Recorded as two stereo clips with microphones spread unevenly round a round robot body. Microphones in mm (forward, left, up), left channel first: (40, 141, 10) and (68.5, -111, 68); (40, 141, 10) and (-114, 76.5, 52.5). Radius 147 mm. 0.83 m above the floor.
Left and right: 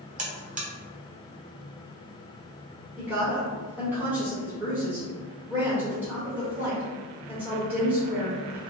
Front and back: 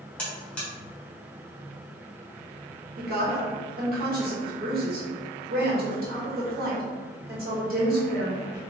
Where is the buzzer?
25° right, 1.0 m.